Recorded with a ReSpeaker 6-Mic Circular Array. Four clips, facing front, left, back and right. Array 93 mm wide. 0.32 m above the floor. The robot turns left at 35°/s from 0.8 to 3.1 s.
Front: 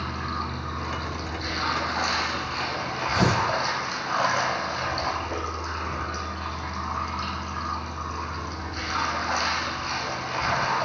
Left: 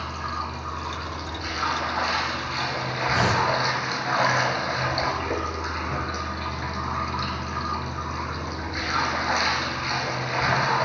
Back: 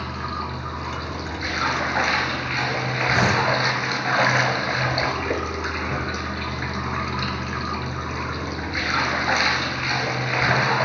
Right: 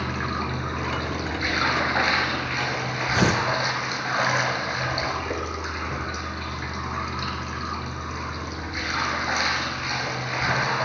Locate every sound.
0.0 s running water: 95° right, 1.8 m; by 10.8 s 175° right, 1.8 m
3.1 s tearing paper: 75° right, 2.5 m